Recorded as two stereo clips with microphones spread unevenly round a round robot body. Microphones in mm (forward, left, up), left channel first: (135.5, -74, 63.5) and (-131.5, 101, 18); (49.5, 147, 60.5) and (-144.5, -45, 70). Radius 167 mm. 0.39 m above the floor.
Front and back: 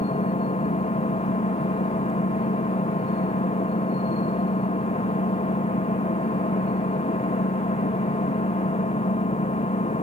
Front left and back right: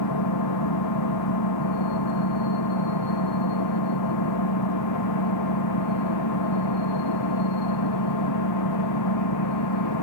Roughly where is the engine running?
Ahead left.